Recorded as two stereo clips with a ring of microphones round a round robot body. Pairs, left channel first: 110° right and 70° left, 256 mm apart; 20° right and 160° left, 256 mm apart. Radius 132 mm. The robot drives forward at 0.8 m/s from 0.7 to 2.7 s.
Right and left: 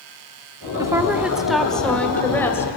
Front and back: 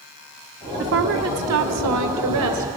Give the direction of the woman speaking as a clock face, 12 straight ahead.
7 o'clock.